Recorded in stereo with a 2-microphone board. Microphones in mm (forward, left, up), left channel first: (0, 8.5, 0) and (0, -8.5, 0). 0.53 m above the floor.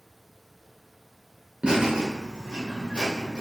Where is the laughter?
50° right (ahead or behind), 1.5 m; by 3.4 s 70° right (ahead or behind), 1.9 m.